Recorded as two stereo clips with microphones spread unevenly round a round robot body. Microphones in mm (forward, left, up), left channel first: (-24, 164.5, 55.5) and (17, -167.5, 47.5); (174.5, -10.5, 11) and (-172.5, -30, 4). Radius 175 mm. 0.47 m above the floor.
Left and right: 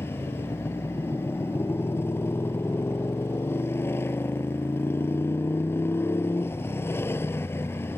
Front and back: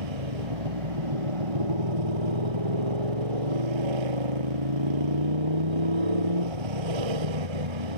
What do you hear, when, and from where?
0.0 s a motorcycle: straight behind